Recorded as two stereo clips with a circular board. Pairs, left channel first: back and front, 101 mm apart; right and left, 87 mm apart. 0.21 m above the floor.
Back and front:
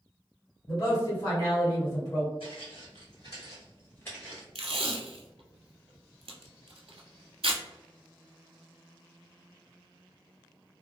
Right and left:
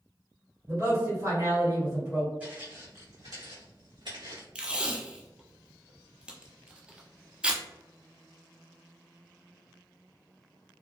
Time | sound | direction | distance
0.7 | a man speaking | 135° left | 1.9 m
2.4 | footsteps | 165° left | 1.0 m
4.5 | tape being pulled | 15° left | 0.6 m